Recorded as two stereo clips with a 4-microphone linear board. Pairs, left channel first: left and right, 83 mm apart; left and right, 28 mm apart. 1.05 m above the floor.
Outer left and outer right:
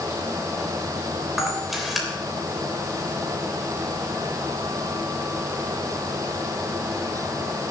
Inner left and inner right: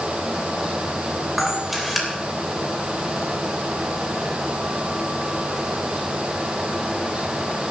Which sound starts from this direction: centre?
A camera shutter, at 1.4 s.